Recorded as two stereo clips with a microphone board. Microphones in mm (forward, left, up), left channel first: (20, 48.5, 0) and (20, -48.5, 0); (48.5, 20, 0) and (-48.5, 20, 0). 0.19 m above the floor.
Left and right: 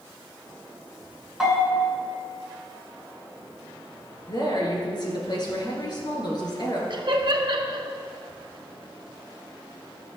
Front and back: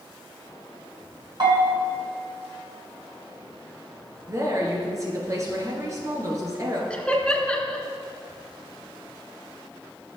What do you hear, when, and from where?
1.4 s a bell: 175° right, 2.5 m
4.3 s a woman speaking: 125° left, 2.5 m
6.9 s laughter: 80° right, 1.8 m